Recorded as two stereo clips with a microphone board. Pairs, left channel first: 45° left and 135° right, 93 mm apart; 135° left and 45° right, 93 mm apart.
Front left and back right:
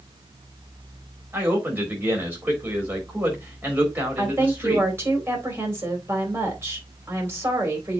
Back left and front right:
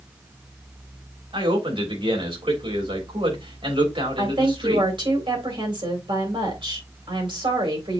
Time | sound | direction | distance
1.3 | a man speaking | 65° right | 4 m
4.2 | a woman speaking | 70° right | 3.5 m